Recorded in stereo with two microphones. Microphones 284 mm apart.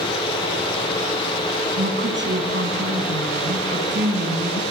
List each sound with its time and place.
1.8 s a woman speaking: 40° right (ahead or behind), 5.5 m